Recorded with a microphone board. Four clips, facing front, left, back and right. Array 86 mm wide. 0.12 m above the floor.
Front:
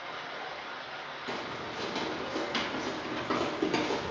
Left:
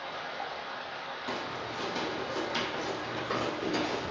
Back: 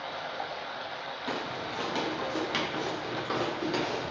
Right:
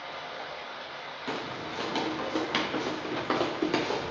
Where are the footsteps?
125° right, 1.6 m; by 4.1 s 65° right, 1.4 m.